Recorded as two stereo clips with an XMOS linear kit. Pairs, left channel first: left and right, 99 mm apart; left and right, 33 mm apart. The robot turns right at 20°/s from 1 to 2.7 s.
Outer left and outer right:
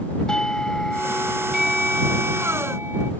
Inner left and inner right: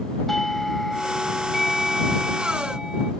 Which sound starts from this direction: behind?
A doorbell, at 0.3 s.